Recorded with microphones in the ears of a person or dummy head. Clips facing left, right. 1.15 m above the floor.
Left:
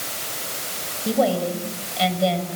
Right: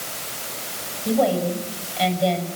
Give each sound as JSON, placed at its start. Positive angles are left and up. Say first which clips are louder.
{"t": 1.1, "sound": "a woman speaking", "louder": "even", "side_deg": 5, "distance_m": 5.5}